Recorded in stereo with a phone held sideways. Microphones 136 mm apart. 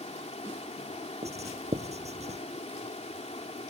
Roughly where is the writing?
Right.